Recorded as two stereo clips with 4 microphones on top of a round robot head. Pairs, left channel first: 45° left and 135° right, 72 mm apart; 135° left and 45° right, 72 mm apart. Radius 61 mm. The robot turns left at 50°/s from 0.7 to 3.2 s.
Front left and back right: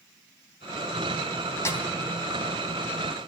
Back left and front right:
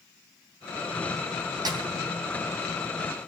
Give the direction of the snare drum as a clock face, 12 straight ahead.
12 o'clock.